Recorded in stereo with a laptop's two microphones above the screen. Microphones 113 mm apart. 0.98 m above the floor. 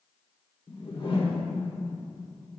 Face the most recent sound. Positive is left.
turn(degrees=65)  # may be behind; listen again after turning